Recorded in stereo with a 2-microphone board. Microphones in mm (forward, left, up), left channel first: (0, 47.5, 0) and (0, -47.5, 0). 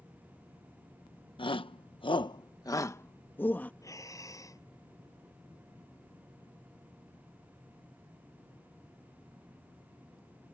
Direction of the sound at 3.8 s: 35° left (ahead or behind).